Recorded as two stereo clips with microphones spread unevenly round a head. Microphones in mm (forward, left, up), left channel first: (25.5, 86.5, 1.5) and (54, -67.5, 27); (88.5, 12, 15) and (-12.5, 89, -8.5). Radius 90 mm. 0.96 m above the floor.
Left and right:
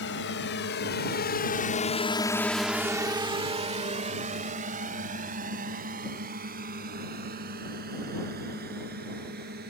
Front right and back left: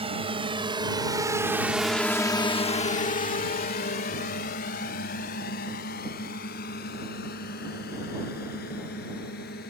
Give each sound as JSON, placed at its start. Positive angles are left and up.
{"t": 0.0, "sound": "a drone", "azimuth_deg": 95}